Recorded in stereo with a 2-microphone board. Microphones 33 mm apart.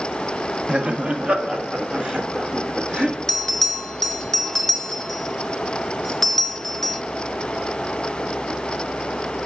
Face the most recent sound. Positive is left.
turn(degrees=10)  # may be behind; listen again after turning